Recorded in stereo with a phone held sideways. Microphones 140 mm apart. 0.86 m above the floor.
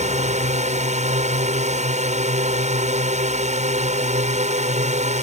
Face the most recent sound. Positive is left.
turn(degrees=-55)  # may be behind; listen again after turning